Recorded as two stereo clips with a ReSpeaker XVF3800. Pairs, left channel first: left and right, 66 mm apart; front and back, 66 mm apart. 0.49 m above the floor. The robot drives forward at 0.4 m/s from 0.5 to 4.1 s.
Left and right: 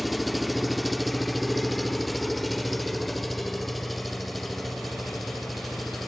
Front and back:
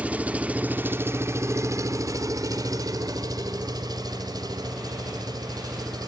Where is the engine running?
175° right, 0.8 m; by 6.1 s straight behind, 1.9 m.